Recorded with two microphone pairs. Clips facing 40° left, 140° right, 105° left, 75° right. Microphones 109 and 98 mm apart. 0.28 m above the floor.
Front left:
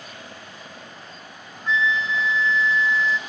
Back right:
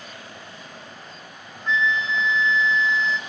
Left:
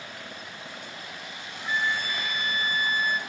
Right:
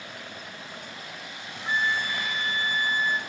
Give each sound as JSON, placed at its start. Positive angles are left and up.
{"t": 1.7, "sound": "a flute", "azimuth_deg": -40, "distance_m": 0.5}